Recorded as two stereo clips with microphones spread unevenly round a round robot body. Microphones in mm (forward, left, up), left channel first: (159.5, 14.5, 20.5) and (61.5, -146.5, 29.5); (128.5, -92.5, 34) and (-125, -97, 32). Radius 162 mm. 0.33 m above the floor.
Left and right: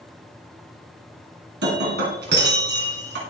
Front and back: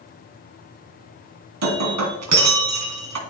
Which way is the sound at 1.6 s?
170° right.